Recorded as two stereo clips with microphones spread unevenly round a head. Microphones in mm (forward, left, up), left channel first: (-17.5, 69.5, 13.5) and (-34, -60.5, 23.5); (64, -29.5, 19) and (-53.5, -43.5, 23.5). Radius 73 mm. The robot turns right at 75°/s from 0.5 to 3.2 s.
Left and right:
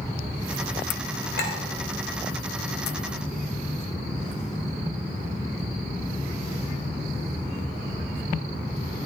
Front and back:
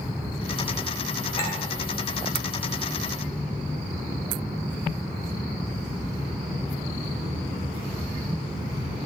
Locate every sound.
1.4 s a clink: 60° left, 3 m; by 1.6 s 75° left, 3 m